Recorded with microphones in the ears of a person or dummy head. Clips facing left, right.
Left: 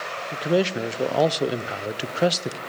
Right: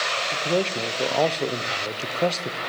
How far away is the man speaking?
About 0.5 m.